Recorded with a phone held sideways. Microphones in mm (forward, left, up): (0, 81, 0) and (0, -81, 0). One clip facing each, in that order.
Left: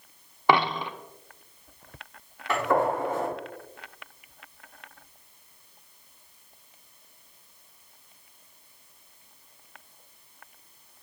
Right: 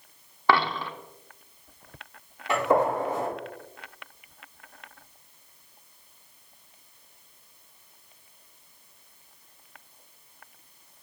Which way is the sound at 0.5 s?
15° left (ahead or behind).